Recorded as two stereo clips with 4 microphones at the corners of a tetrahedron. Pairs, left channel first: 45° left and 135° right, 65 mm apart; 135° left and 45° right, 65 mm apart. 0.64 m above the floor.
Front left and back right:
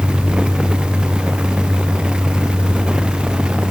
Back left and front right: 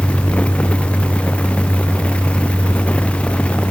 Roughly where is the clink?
I don't hear a clink.